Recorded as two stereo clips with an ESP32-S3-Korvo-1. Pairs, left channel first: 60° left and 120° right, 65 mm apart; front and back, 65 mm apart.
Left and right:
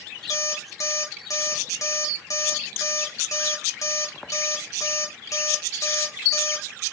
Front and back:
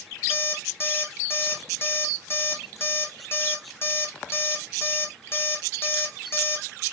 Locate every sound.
0.3 s an alarm clock: 40° left, 1.2 m